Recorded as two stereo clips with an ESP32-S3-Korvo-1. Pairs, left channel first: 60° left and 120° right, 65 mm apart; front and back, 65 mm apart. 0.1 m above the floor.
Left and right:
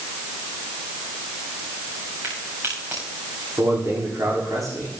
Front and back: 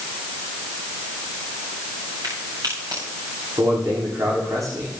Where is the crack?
175° right, 8.5 m.